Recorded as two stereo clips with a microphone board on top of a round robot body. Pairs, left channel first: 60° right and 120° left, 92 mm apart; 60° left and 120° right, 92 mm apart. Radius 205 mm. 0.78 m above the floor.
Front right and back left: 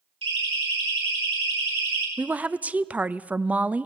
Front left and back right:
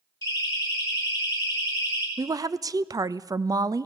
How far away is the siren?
About 8 m.